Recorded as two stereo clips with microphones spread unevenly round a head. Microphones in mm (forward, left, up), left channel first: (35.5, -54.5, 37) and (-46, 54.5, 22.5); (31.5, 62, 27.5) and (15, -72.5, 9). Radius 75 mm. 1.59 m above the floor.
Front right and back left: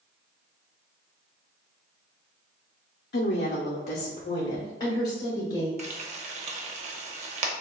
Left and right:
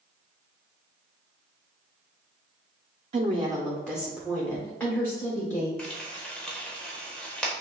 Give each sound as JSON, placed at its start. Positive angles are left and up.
{"t": 3.1, "sound": "a woman speaking", "azimuth_deg": -50, "distance_m": 0.5}
{"t": 5.8, "sound": "frying", "azimuth_deg": 170, "distance_m": 0.7}